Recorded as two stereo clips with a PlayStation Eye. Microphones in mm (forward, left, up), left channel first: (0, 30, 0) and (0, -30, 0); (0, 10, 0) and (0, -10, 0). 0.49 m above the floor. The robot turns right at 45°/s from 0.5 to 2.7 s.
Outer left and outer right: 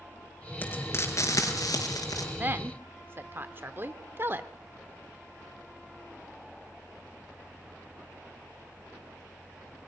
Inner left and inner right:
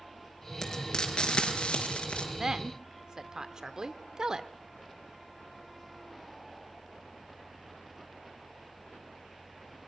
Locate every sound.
0.6 s frying: 35° left (ahead or behind), 4 m; by 2.3 s 70° left (ahead or behind), 4 m
2.4 s a woman speaking: 30° right (ahead or behind), 1.1 m; by 4.5 s 40° right (ahead or behind), 1.1 m